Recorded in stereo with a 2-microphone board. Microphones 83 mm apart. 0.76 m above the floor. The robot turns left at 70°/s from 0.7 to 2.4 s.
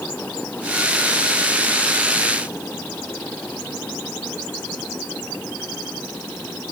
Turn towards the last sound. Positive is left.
No sound to turn to.